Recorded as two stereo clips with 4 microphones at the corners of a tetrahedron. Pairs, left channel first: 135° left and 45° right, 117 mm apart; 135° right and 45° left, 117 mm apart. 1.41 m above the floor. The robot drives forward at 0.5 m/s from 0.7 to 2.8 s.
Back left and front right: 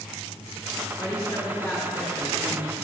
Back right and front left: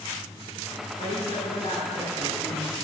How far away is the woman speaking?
About 2.5 m.